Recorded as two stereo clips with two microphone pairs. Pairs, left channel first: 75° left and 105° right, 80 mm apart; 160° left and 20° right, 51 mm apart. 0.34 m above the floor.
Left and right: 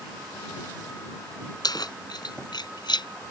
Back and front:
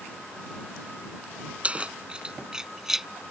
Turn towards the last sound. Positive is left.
turn(degrees=65)